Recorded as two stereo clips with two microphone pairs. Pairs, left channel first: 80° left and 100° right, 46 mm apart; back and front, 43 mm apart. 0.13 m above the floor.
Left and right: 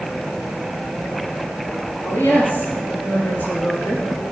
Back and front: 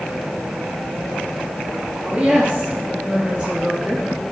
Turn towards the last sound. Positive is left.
turn(degrees=45)